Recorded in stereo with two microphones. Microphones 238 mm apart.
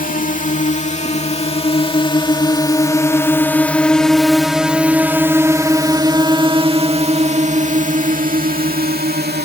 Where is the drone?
35° left (ahead or behind); by 9.4 s 45° right (ahead or behind).